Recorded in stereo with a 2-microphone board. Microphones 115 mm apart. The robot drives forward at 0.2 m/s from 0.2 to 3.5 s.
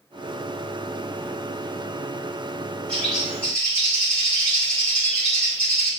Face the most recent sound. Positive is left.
turn(degrees=10)  # may be behind; listen again after turning